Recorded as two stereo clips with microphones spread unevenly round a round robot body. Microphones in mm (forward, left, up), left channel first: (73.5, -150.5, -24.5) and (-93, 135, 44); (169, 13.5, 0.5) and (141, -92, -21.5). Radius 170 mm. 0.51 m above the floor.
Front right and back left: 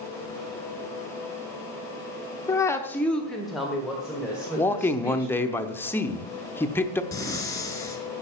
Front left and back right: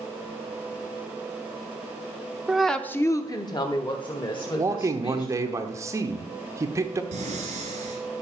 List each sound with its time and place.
2.5 s a woman speaking: 75° right, 0.8 m; by 5.6 s 30° left, 3 m
4.6 s a man speaking: 125° right, 0.8 m
7.1 s breathing: 140° right, 1.8 m